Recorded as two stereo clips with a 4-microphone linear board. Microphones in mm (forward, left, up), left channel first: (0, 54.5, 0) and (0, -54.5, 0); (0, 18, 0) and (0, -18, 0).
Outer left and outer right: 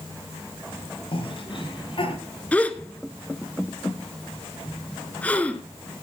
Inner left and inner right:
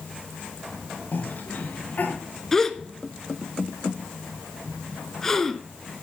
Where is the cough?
55° left (ahead or behind), 5.5 m.